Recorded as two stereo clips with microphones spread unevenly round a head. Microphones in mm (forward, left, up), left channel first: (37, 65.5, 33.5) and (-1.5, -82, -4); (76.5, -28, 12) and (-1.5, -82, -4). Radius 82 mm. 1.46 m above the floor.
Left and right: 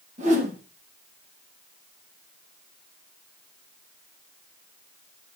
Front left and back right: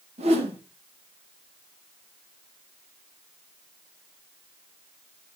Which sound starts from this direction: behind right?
A whoosh, at 0.2 s.